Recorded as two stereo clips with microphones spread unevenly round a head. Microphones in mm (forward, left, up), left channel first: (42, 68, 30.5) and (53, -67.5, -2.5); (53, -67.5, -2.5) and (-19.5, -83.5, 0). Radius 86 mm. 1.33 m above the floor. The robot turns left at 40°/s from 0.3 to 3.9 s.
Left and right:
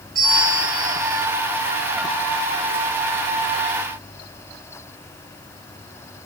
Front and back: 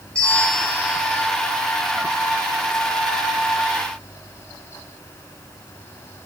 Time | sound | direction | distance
0.1 | a bell | 65° right | 6.5 m